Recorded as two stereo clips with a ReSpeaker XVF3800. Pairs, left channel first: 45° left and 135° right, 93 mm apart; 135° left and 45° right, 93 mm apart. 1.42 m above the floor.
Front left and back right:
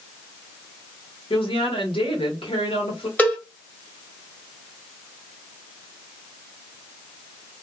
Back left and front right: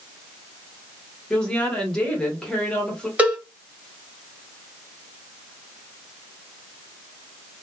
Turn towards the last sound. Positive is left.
turn(degrees=0)